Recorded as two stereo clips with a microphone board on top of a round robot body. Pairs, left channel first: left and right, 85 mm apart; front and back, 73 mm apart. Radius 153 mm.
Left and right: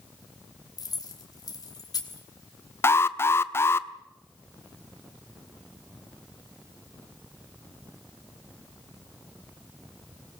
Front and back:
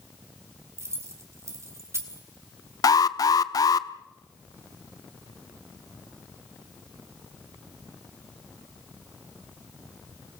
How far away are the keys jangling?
About 3.5 m.